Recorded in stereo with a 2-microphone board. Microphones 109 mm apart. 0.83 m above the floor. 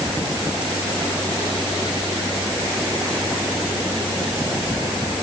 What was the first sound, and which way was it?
Only background noise.